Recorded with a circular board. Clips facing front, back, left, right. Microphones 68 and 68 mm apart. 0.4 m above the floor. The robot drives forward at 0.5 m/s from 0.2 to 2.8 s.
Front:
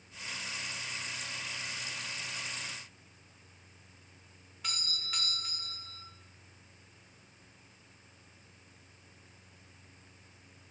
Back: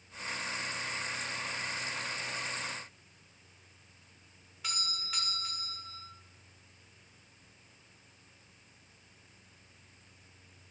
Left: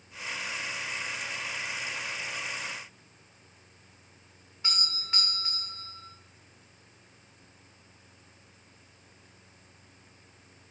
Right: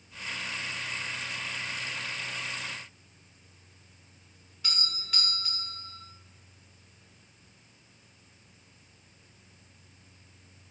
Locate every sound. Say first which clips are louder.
4.6 s a doorbell: back 2 dB, left 2 dB; 90° left, 1.7 m